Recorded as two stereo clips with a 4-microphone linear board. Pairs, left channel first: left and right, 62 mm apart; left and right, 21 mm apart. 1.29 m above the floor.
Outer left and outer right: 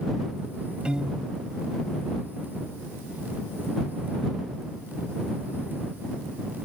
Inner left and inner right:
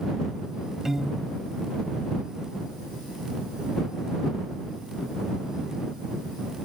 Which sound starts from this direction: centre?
A piano, at 0.8 s.